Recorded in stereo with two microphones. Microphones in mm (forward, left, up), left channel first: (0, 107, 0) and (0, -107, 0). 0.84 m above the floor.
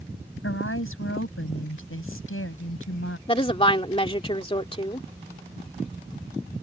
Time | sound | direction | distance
0.4 | a woman speaking | 80° left | ?
3.3 | a woman speaking | 25° left (ahead or behind) | ?